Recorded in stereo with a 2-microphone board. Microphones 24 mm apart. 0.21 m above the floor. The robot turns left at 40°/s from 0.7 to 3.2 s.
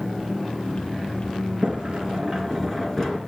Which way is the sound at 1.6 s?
130° right.